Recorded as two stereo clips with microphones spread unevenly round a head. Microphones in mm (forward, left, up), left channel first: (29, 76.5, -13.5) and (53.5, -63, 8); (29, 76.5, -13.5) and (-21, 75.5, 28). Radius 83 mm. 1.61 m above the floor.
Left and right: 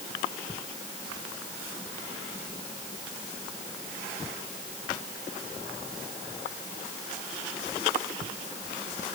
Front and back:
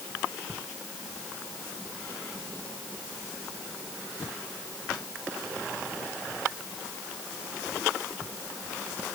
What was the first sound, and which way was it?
Only background noise.